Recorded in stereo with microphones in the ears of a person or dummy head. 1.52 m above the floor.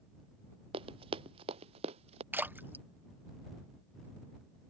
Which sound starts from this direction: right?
Running footsteps, at 0.7 s.